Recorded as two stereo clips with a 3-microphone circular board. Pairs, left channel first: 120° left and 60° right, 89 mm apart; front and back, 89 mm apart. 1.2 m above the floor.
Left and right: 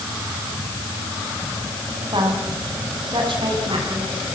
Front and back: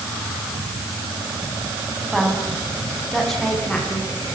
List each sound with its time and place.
2.1 s a woman speaking: 90° right, 7 m; by 4.1 s 85° right, 10 m